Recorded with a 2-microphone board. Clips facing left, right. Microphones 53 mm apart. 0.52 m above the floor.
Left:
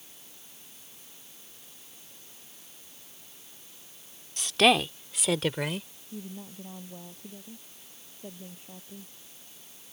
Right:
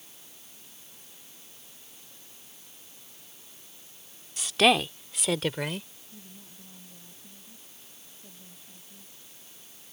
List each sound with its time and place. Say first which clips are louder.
4.4 s a woman speaking: even; centre (ahead or behind); by 5.9 s 5° left (ahead or behind)
6.1 s a woman speaking: left 11 dB; 50° left (ahead or behind)